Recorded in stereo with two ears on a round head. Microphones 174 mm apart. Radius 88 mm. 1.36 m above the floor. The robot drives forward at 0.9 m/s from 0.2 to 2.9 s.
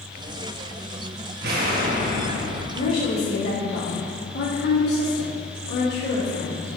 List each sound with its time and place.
1.4 s an explosion: 60° right (ahead or behind), 1.1 m; by 2.6 s 35° right (ahead or behind), 1.7 m
2.7 s a woman speaking: 65° left (ahead or behind), 3 m